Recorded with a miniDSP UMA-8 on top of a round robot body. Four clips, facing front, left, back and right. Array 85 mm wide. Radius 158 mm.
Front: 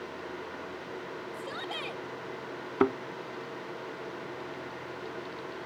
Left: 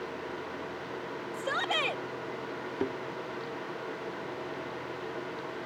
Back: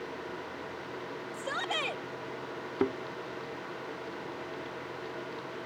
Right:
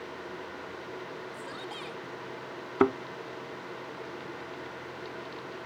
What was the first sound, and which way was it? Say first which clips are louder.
A shout: left 8 dB, back 6 dB; 115° left.